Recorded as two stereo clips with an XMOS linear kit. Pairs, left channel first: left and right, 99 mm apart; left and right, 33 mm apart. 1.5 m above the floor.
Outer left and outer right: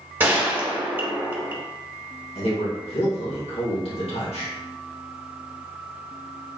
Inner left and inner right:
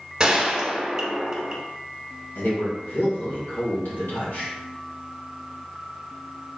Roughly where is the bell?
I don't hear a bell.